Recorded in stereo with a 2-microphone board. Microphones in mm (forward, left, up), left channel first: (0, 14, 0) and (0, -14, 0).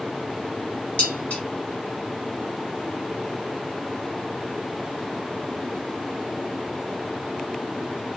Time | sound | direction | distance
1.0 | dishes clattering | 50° left (ahead or behind) | 1.7 m